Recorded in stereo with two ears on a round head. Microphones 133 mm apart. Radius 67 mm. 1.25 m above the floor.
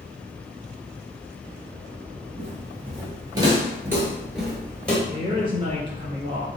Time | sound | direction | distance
2.4 | footsteps | 40° right (ahead or behind) | 1.6 m
5.1 | a woman speaking | 40° right (ahead or behind) | 1.1 m